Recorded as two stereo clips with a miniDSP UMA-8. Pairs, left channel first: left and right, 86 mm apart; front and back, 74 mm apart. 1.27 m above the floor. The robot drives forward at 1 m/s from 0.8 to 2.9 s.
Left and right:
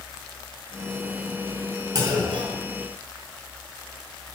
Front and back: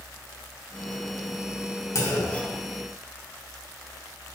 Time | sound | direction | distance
1.9 | a clunk | 45° right | 0.9 m